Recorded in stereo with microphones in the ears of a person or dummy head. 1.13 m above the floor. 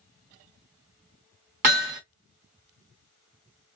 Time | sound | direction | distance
1.6 | hammering | 30° right (ahead or behind) | 0.9 m